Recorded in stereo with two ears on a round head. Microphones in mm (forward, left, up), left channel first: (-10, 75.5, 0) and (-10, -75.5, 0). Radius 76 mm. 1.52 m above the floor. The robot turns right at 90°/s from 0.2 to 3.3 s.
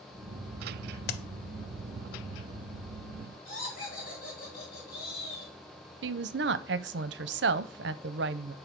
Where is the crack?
55° left (ahead or behind), 0.6 m; by 1.2 s 60° left (ahead or behind), 0.6 m.